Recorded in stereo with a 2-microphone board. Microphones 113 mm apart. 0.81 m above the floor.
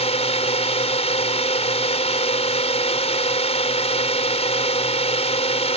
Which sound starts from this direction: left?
A drone, at 0.0 s.